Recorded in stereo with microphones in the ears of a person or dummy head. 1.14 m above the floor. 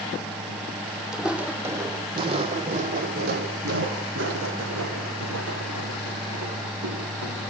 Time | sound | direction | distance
1.1 | footsteps | 5° right (ahead or behind) | 2.5 m